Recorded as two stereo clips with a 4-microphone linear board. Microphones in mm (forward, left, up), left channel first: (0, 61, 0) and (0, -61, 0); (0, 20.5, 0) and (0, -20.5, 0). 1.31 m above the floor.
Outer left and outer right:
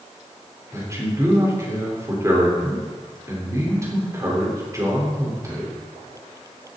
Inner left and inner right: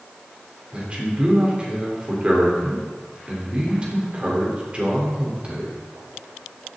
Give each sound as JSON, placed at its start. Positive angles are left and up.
{"t": 0.7, "sound": "a man speaking", "side_deg": -25, "distance_m": 4.5}